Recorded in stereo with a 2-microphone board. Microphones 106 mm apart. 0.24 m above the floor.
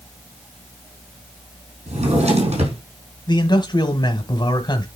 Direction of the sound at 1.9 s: 85° right.